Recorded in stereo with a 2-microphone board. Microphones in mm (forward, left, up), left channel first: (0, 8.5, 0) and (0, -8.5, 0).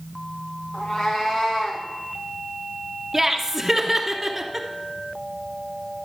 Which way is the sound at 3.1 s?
10° right (ahead or behind).